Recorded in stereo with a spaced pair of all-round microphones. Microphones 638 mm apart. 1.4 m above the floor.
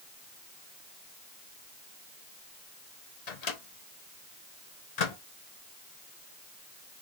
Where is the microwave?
80° left, 1.0 m.